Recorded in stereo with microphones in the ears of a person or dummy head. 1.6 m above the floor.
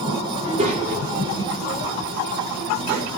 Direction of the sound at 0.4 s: 25° right (ahead or behind).